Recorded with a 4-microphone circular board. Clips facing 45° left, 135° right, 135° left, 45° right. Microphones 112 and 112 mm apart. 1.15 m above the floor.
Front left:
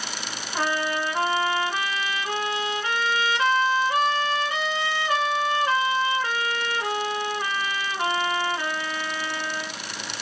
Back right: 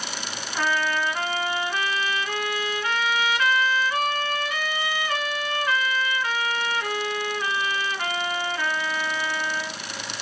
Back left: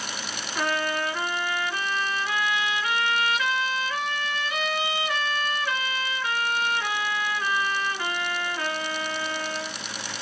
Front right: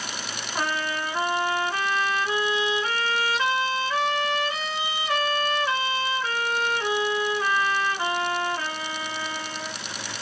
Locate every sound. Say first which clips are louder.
0.6 s a trumpet: back right 1 dB, back left 1 dB; 5° right, 0.7 m